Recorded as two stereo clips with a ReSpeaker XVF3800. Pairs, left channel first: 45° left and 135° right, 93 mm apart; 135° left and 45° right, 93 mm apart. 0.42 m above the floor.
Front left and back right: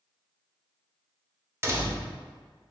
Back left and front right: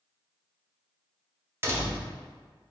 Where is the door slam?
90° right, 0.6 m.